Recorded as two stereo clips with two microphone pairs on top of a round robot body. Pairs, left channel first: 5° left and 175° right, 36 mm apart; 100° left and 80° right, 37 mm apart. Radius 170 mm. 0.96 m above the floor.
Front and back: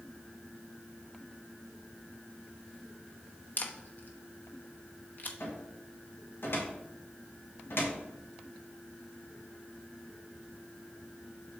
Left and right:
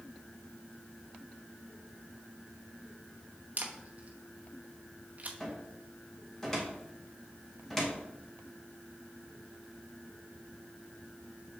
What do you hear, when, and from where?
3.6 s a camera shutter: 30° right, 0.9 m
5.4 s a cupboard door: 25° left, 1.7 m